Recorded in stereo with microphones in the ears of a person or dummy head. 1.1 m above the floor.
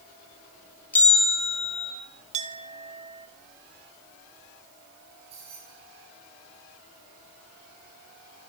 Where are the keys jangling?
35° right (ahead or behind), 9.5 m.